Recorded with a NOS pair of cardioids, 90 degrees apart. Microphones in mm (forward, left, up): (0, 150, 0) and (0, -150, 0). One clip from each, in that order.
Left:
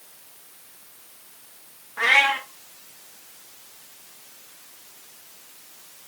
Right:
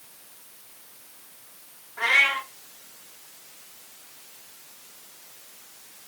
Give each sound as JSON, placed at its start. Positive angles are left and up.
{"t": 2.0, "sound": "a cat meowing", "azimuth_deg": 40, "distance_m": 1.4}